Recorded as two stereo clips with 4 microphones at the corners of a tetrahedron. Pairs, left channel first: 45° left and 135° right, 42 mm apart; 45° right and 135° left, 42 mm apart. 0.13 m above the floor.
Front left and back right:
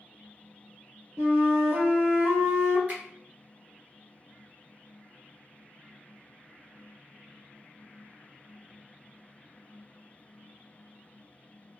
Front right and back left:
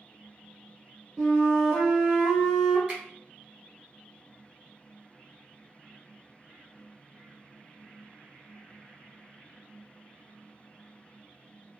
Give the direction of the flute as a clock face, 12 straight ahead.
5 o'clock.